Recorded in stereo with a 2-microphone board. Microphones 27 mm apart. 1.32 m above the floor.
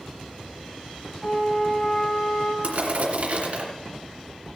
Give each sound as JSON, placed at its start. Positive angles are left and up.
{"t": 1.2, "sound": "a flute", "side_deg": 40, "distance_m": 2.5}
{"t": 2.6, "sound": "crushing", "side_deg": -60, "distance_m": 2.0}